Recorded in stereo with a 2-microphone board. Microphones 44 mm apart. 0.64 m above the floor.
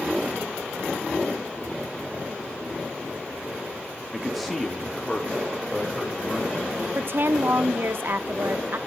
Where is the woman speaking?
55° right (ahead or behind), 0.8 m.